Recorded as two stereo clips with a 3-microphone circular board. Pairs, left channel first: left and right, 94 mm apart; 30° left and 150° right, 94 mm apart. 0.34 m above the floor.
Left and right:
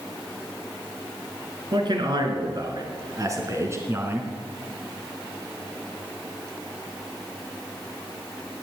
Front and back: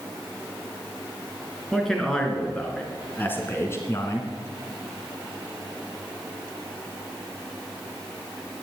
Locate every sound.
1.7 s a man speaking: 55° right, 4 m; by 4.3 s 20° right, 3 m